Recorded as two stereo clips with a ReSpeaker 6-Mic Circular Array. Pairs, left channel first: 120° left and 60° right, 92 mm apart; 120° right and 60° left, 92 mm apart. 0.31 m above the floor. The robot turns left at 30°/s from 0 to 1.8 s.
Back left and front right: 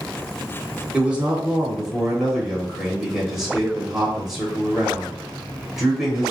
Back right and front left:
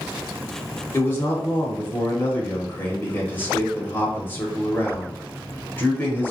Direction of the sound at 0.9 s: 115° right.